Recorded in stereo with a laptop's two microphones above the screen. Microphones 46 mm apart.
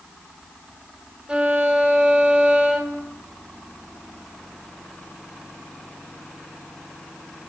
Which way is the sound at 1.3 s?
25° right (ahead or behind).